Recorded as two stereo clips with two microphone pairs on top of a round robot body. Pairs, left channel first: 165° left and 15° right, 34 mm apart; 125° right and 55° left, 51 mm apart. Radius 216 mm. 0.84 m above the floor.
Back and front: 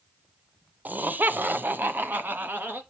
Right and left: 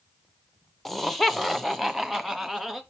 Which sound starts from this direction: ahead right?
Laughter, at 0.8 s.